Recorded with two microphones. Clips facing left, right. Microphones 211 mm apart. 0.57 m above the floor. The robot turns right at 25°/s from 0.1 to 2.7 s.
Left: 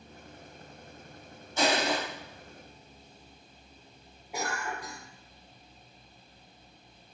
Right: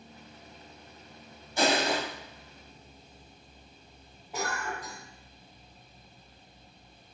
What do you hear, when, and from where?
1.6 s crushing: 15° right (ahead or behind), 1.2 m; by 2.0 s 5° right (ahead or behind), 1.2 m
4.3 s a cough: 10° left (ahead or behind), 0.7 m